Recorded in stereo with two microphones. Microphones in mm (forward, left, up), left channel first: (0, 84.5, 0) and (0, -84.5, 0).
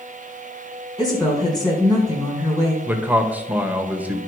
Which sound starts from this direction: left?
A woman speaking, at 1.0 s.